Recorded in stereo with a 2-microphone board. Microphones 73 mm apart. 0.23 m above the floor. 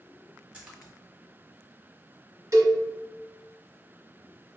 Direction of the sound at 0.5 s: 15° right (ahead or behind).